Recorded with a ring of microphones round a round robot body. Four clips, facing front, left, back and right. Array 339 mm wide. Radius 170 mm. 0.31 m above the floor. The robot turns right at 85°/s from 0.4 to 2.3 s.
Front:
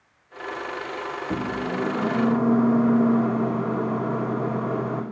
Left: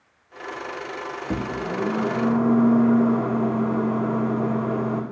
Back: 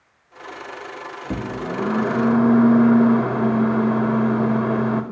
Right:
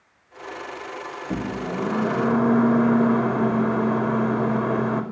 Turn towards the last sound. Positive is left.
turn(degrees=-140)